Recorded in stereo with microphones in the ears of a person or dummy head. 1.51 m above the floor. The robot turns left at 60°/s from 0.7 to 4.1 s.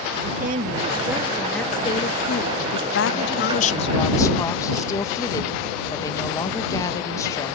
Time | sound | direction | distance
0.2 | a woman speaking | 130° right | ?
2.6 | a woman speaking | 115° left | ?